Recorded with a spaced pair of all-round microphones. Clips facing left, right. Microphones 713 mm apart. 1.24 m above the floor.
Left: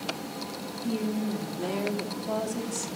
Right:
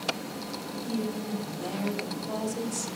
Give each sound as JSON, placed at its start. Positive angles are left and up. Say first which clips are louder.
{"t": 0.8, "sound": "a woman speaking", "louder": "left 3 dB", "side_deg": 75, "distance_m": 4.0}